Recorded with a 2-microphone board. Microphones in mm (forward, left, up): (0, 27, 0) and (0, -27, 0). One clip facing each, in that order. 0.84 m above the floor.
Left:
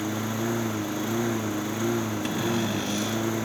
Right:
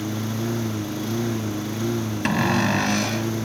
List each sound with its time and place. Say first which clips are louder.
0.0 s a lawn mower: right 1 dB; 15° left (ahead or behind)
2.2 s a cupboard door: right 10 dB; 70° right (ahead or behind)